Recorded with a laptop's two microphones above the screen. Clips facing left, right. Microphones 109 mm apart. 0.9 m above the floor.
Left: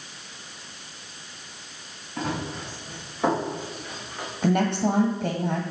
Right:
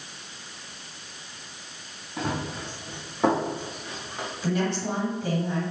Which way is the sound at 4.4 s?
60° left (ahead or behind).